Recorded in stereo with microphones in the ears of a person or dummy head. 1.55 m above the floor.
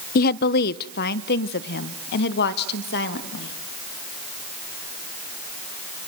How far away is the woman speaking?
About 0.6 m.